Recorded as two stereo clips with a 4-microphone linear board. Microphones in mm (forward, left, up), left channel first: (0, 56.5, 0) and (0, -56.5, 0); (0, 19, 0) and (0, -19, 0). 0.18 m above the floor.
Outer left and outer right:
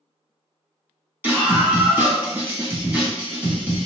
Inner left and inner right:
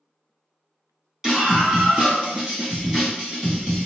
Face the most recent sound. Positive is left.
turn(degrees=-20)  # may be behind; listen again after turning